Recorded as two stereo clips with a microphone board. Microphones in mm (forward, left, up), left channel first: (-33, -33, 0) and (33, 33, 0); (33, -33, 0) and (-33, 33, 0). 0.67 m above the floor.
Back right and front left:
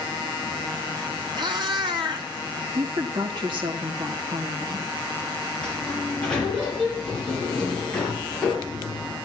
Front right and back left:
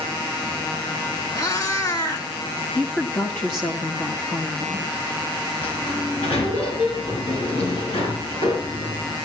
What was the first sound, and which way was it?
A cat meowing, 5° left.